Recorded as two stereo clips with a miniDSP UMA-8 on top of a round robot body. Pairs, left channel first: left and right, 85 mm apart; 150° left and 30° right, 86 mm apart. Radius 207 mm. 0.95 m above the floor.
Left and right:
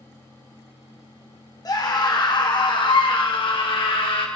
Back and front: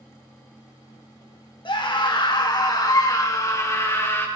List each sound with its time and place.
1.6 s a scream: 130° left, 2.5 m; by 4.3 s 90° left, 3 m